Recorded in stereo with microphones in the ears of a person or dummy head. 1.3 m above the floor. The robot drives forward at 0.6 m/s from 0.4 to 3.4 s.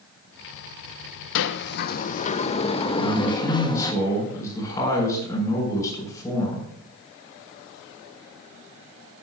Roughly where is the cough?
I don't hear a cough.